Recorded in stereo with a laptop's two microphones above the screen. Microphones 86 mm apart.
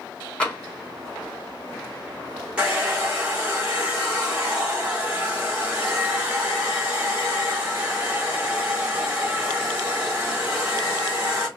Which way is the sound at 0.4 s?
15° left (ahead or behind).